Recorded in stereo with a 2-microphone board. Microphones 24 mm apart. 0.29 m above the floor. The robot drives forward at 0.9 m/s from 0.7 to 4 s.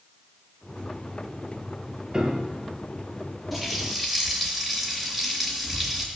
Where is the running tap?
5° right (ahead or behind), 4 m.